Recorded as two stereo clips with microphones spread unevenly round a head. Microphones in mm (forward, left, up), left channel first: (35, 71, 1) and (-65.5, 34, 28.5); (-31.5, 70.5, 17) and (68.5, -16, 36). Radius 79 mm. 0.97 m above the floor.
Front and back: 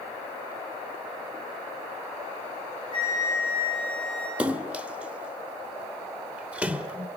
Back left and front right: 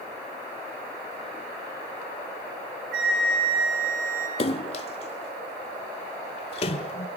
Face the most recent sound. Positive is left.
turn(degrees=165)